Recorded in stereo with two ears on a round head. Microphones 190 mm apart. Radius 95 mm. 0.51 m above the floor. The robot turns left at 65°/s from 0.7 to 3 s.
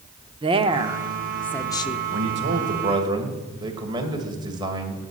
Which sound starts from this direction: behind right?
A woman speaking, at 0.4 s.